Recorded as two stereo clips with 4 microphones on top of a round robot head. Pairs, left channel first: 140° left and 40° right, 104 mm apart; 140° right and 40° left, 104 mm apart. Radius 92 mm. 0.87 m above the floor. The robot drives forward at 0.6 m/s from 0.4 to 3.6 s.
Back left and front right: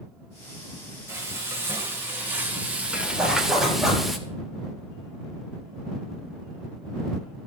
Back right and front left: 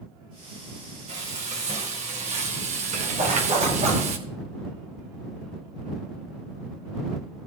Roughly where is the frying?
Ahead left.